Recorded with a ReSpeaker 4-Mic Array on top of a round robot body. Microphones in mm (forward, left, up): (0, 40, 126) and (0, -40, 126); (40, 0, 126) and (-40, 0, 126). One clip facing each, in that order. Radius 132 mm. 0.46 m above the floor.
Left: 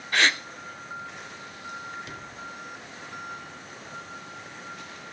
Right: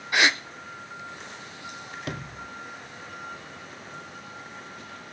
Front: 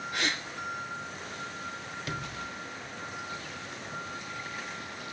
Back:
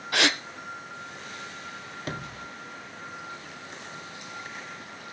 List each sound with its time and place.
0.1 s a gasp: 170° right, 0.8 m
2.1 s a sliding door: 125° right, 0.9 m